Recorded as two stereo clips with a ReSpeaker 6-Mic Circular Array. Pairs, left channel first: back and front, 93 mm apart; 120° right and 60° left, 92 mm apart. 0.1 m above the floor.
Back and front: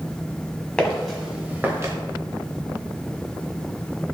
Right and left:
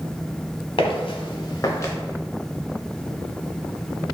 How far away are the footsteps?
About 0.8 m.